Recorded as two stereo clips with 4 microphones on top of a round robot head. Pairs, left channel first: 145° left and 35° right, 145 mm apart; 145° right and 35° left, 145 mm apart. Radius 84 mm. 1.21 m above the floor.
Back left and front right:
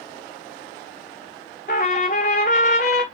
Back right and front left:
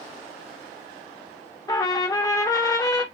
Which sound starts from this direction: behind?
A trumpet, at 1.7 s.